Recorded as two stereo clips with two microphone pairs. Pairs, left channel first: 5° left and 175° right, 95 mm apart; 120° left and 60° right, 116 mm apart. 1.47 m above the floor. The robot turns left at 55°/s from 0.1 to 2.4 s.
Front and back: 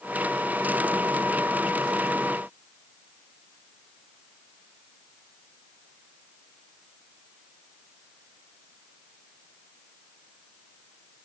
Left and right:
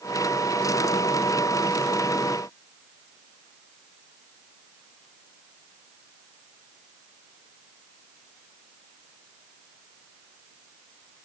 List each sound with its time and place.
Only background noise.